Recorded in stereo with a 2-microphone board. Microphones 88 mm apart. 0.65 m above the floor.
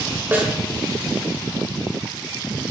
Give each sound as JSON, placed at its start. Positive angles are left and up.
{"t": 0.3, "sound": "a snare drum", "side_deg": -25, "distance_m": 2.5}